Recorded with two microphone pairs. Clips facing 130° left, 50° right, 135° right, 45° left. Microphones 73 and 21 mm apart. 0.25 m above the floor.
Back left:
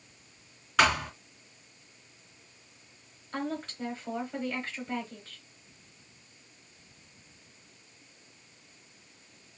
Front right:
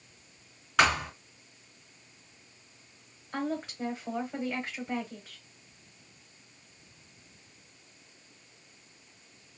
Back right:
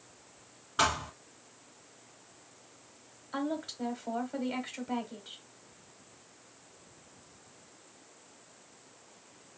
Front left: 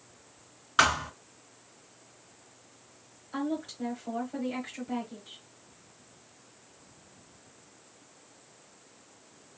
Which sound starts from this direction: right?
A woman speaking, at 3.3 s.